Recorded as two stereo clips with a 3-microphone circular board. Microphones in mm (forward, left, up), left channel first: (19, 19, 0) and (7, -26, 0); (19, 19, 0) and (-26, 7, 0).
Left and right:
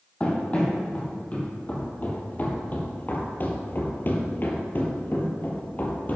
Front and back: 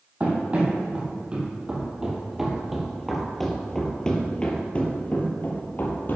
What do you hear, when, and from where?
0.2 s running footsteps: 135° left, 3.5 m; by 6.2 s 30° left, 2.5 m